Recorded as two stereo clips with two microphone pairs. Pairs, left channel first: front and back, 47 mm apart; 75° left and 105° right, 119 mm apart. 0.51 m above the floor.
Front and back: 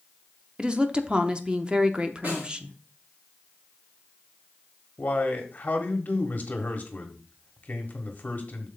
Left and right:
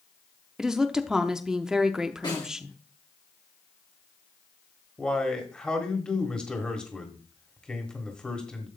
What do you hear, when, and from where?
0.6 s a woman speaking: 175° right, 0.7 m
2.2 s a snare drum: 130° left, 5.5 m
5.0 s a man speaking: straight ahead, 1.5 m